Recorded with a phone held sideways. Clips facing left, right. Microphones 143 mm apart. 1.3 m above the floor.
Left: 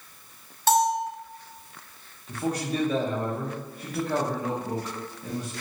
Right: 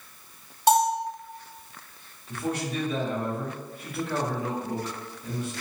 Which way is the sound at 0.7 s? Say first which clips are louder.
Right 1 dB; 15° right (ahead or behind).